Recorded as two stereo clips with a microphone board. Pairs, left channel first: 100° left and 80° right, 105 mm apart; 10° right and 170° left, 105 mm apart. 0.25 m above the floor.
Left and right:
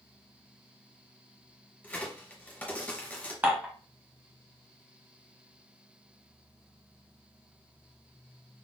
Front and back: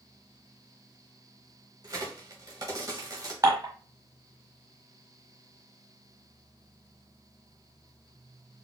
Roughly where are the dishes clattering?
Behind right.